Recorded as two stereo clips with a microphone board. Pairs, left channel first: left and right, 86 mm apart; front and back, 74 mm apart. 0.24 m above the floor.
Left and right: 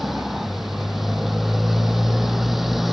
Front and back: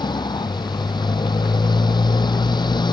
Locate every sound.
0.0 s a motorcycle: straight ahead